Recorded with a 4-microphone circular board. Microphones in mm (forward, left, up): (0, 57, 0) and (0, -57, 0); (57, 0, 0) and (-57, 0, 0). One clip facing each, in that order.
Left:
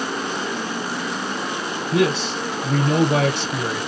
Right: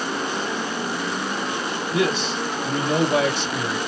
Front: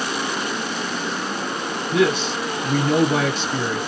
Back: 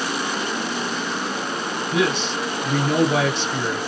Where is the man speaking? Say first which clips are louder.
Left 3 dB, front 3 dB; 85° left, 3.5 m.